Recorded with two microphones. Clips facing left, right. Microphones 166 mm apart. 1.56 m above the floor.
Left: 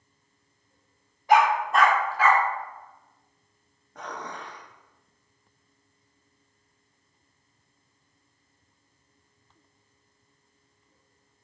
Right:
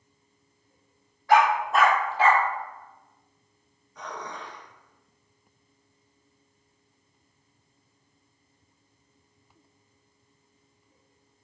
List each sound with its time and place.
1.3 s a dog barking: 20° left (ahead or behind), 1.7 m; by 2.4 s 40° right (ahead or behind), 1.9 m
4.0 s dishes clattering: 65° left (ahead or behind), 2 m